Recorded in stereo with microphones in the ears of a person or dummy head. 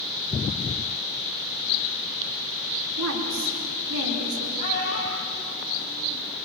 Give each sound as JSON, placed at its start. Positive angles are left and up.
{"t": 3.0, "sound": "a woman speaking", "side_deg": -85, "distance_m": 5.0}
{"t": 4.6, "sound": "a child speaking", "side_deg": 50, "distance_m": 5.0}